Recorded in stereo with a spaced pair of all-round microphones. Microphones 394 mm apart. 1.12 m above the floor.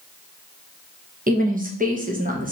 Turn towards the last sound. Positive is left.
turn(degrees=-20)  # may be behind; listen again after turning